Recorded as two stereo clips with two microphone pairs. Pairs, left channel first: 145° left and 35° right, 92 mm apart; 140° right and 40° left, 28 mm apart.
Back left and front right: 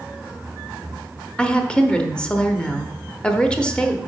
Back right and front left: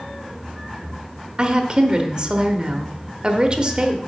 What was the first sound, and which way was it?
A woman speaking, 75° left.